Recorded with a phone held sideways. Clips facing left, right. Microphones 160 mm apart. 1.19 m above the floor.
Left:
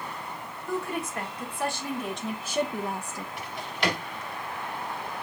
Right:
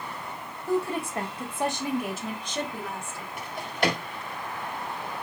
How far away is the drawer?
About 1.7 m.